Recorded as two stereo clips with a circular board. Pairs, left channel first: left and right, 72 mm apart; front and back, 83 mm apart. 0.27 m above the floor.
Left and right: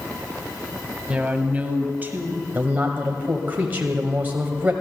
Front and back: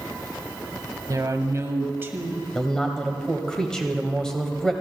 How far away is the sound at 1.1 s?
About 1.6 m.